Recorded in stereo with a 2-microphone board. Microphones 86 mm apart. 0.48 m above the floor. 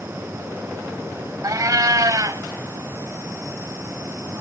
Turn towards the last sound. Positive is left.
turn(degrees=-45)  # may be behind; listen again after turning